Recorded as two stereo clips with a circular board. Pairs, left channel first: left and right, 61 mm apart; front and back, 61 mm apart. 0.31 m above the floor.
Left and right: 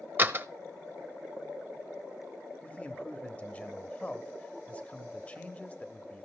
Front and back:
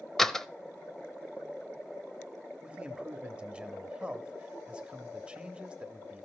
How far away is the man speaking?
About 1.0 m.